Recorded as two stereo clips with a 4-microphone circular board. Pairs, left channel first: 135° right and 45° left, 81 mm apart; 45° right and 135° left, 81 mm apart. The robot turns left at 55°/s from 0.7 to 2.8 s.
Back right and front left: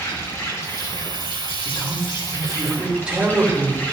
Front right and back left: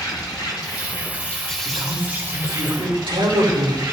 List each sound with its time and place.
0.0 s an insect: 80° right, 1.8 m; by 3.9 s 165° left, 1.8 m
1.6 s a man speaking: 175° right, 3 m; by 3.8 s 125° left, 3 m